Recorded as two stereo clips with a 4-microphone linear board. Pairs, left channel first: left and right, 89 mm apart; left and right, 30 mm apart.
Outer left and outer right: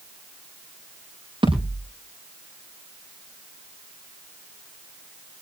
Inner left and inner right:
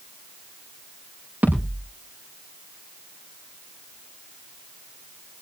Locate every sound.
1.4 s a thud: 70° right (ahead or behind), 8 m